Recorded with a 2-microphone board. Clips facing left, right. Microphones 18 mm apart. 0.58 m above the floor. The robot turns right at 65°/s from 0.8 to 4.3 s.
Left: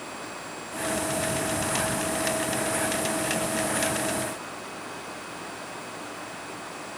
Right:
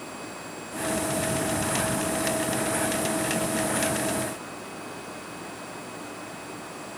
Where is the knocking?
No knocking in this recording.